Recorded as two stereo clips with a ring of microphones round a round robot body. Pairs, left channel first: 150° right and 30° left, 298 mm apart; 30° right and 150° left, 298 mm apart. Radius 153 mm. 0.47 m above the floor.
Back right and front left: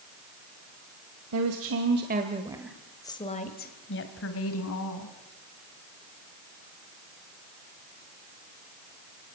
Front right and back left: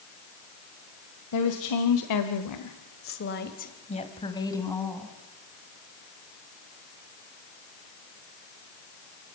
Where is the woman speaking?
5° right, 2 m; by 5.1 s 115° right, 3.5 m.